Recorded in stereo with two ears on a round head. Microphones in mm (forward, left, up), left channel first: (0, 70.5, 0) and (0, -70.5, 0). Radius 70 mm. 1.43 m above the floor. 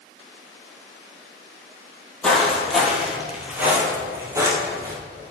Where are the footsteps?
5° left (ahead or behind), 1.7 m; by 4.9 s 25° right (ahead or behind), 1.6 m.